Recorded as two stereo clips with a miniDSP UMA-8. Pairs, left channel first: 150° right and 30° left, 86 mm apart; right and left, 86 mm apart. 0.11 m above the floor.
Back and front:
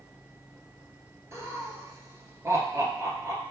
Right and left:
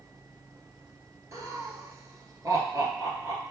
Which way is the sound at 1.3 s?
65° left.